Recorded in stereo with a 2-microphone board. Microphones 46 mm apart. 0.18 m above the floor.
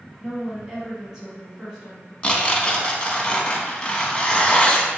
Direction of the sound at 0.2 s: 15° right (ahead or behind).